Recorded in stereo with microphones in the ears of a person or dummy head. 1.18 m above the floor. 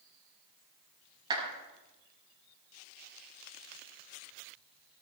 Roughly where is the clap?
Right.